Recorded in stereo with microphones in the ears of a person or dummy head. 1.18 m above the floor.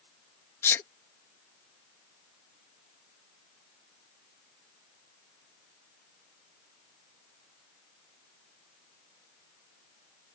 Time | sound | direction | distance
0.6 | a sneeze | 15° left (ahead or behind) | ?